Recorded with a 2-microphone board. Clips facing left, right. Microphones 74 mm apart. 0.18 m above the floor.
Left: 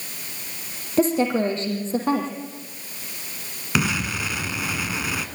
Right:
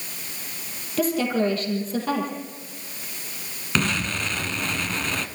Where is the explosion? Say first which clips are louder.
Left 1 dB; 10° left (ahead or behind), 1.6 m.